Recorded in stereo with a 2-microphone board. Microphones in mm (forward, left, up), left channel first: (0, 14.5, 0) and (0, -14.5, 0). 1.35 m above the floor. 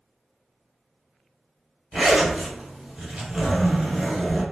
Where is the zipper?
5° right (ahead or behind), 1.4 m.